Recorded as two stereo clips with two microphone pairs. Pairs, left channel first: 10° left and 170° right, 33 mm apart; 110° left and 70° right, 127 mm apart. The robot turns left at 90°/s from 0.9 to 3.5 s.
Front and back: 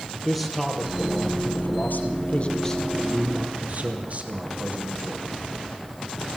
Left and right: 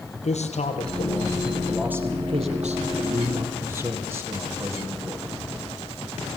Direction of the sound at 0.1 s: 95° left.